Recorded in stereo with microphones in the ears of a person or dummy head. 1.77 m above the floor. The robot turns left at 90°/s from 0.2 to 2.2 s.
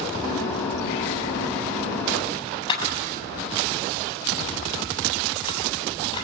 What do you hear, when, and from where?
2.7 s a camera shutter: 30° left (ahead or behind), 8 m